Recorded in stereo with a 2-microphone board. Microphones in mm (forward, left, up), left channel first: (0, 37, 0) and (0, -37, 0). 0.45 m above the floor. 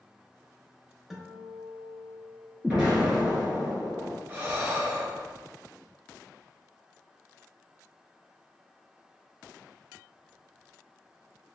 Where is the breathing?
30° right (ahead or behind), 0.6 m.